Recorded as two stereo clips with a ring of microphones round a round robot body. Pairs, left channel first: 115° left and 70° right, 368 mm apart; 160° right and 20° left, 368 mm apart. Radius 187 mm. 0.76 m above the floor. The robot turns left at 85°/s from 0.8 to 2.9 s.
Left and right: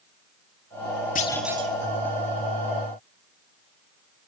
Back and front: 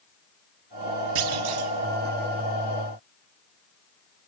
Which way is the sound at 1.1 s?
45° left.